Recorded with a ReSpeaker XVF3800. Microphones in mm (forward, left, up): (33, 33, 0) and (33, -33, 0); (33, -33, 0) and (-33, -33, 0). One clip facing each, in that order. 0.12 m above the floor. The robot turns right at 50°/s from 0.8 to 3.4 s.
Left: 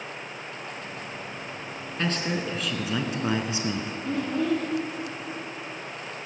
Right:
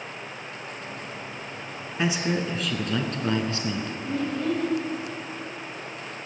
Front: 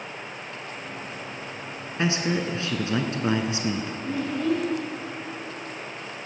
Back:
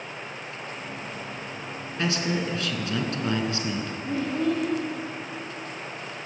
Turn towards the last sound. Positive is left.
turn(degrees=110)